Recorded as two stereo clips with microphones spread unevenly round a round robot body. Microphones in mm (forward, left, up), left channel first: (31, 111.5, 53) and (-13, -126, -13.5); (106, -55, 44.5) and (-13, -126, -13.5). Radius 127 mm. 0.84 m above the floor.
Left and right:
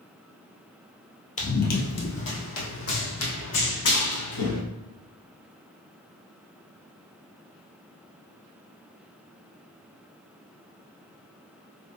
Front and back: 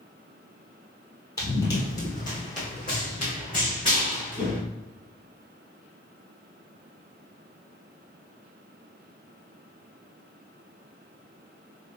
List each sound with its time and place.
1.4 s running footsteps: 55° left, 1.1 m; by 4.6 s 95° left, 3.5 m